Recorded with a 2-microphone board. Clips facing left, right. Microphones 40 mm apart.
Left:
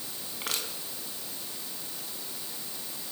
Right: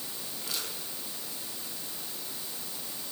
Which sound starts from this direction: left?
Crushing, at 0.4 s.